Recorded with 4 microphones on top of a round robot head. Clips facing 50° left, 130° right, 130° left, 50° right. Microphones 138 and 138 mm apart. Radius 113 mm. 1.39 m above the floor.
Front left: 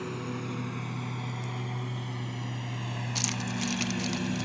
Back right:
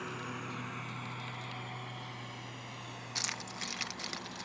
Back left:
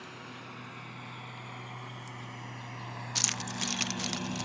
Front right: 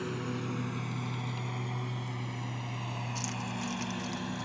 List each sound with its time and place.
0.0 s a lawn mower: 10° right; by 4.5 s 45° left
3.1 s keys jangling: 125° left